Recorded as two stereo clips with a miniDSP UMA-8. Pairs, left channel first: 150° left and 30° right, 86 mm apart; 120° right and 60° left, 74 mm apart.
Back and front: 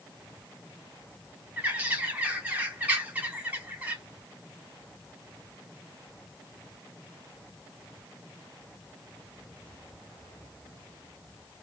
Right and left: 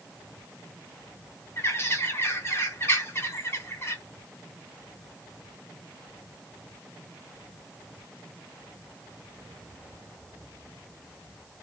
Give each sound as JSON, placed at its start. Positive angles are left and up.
{"t": 1.6, "sound": "a bird", "azimuth_deg": -90, "distance_m": 0.8}